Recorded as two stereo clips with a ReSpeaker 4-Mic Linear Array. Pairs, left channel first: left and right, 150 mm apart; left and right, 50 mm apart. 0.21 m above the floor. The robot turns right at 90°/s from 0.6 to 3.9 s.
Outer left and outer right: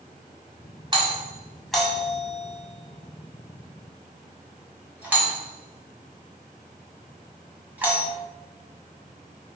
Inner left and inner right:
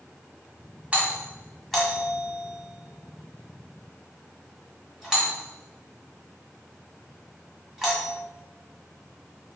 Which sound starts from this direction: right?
A doorbell, at 0.9 s.